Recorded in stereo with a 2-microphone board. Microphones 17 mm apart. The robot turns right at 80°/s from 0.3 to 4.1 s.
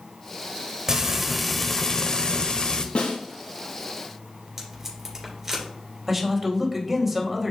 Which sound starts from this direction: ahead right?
Frying, at 0.9 s.